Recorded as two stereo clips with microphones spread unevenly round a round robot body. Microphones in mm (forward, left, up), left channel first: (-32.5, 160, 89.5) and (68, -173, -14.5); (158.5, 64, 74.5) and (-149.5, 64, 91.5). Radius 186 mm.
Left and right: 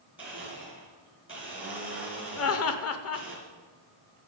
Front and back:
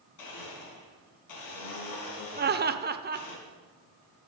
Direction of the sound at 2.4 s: 150° left.